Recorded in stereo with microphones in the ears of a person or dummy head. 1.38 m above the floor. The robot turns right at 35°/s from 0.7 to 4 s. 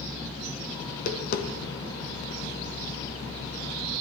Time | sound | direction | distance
0.9 | tapping | 40° left (ahead or behind) | 0.9 m